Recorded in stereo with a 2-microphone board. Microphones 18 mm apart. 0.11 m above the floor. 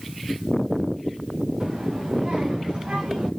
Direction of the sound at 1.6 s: 50° right (ahead or behind).